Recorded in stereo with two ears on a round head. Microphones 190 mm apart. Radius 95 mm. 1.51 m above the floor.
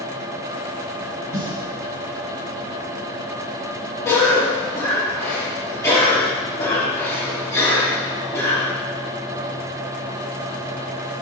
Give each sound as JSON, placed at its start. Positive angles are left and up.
{"t": 1.3, "sound": "a snare drum", "side_deg": 30, "distance_m": 3.5}
{"t": 4.0, "sound": "a cough", "side_deg": 15, "distance_m": 3.0}